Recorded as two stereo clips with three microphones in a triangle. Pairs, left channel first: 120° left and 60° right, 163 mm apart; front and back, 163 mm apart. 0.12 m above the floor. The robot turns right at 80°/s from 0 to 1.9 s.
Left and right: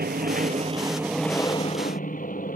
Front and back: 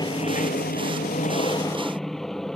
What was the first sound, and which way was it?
An aircraft, 65° right.